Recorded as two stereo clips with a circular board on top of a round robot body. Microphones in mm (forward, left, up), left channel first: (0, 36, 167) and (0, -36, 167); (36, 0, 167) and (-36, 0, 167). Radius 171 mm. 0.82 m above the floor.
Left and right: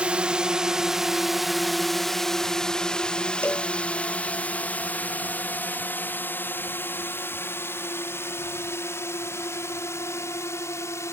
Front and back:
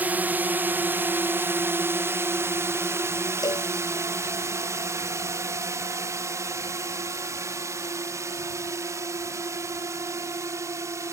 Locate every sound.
0.0 s a drone: 145° right; by 11.1 s 135° left
3.4 s a cowbell: 25° left